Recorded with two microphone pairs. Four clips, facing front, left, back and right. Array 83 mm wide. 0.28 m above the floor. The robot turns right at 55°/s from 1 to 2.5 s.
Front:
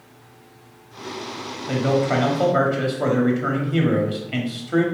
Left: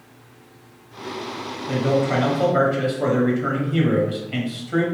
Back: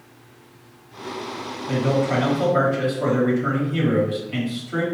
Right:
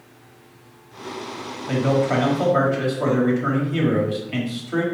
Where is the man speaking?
40° right, 1.2 m; by 4.8 s 5° left, 1.2 m.